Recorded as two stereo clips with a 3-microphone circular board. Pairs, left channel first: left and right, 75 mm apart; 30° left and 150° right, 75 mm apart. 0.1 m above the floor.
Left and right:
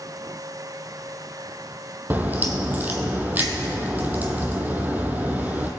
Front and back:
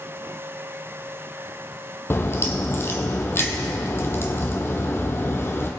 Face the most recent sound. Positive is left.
turn(degrees=-25)